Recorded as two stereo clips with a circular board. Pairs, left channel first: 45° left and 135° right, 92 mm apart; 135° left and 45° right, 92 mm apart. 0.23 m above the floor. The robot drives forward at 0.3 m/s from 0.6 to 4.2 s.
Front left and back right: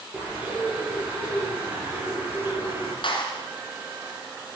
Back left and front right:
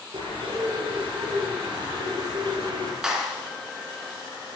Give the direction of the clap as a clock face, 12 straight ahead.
11 o'clock.